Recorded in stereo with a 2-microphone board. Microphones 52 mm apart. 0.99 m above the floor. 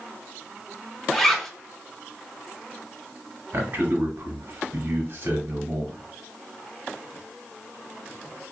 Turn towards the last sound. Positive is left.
turn(degrees=-50)  # may be behind; listen again after turning